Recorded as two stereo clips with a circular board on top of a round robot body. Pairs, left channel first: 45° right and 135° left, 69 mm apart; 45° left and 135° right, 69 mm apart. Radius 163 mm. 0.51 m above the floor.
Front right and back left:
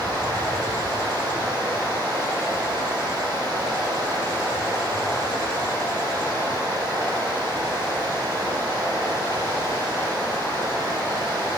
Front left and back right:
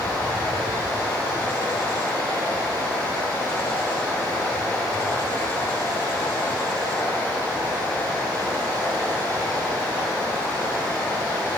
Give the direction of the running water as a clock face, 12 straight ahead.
8 o'clock.